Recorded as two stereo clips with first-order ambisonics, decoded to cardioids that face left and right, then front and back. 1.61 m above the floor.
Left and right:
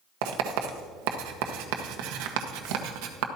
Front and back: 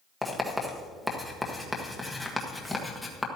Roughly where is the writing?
Right.